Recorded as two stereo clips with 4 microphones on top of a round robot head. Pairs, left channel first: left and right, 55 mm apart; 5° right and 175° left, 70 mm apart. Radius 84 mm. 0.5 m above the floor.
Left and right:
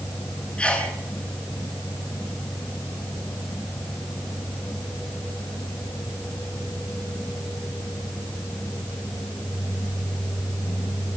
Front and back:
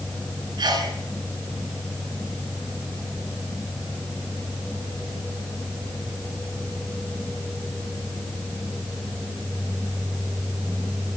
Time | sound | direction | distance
0.6 | a sneeze | 160° left | 8.5 m